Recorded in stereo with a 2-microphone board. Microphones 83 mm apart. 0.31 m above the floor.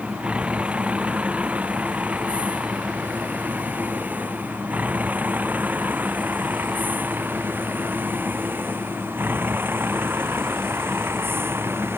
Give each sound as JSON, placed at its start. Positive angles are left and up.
{"t": 0.0, "sound": "a vehicle", "side_deg": -15}